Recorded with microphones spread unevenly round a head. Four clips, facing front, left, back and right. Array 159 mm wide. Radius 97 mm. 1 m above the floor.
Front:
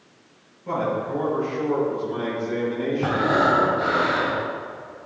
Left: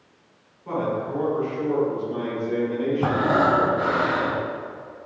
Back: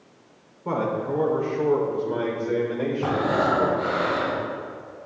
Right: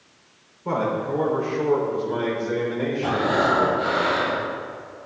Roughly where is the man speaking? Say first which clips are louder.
Right 2 dB, even; behind right.